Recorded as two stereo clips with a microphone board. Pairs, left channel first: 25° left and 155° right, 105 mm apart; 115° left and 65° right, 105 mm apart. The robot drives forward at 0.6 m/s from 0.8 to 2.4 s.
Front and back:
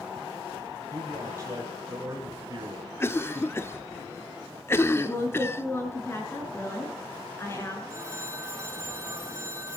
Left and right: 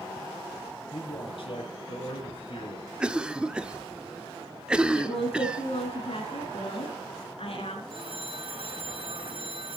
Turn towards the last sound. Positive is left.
turn(degrees=-95)